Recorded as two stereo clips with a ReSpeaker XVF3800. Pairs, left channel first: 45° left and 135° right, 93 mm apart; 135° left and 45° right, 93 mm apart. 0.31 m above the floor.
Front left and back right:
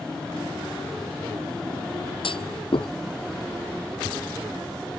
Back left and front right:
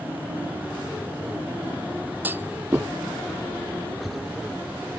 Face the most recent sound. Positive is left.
turn(degrees=25)